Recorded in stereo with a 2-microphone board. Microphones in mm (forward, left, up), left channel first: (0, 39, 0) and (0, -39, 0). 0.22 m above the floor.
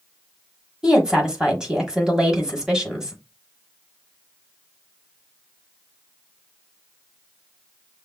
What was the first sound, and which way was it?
A woman speaking, 10° right (ahead or behind).